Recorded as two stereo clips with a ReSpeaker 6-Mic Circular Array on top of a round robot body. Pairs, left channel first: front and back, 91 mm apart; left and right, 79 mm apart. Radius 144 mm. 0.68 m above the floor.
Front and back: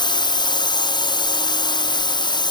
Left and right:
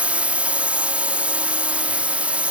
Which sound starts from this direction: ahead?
A drone, at 0.0 s.